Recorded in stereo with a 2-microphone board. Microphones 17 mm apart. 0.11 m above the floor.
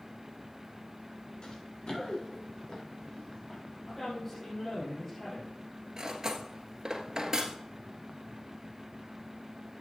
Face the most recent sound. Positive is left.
turn(degrees=-30)  # may be behind; listen again after turning